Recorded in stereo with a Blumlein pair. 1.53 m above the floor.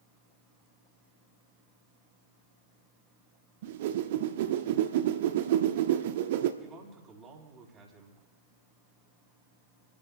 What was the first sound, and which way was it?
A whoosh, 55° right.